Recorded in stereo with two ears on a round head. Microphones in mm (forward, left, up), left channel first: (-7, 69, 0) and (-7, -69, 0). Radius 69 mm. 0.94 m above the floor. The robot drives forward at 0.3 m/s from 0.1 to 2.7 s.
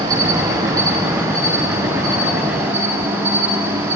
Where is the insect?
25° right (ahead or behind), 1.8 m; by 4.0 s 15° right (ahead or behind), 2.5 m.